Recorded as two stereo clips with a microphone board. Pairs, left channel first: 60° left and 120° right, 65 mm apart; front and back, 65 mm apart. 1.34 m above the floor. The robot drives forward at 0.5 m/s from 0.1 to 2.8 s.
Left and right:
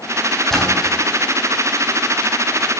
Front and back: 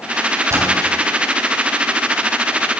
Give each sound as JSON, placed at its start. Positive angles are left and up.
{"t": 0.5, "sound": "a splash", "azimuth_deg": 140, "distance_m": 4.0}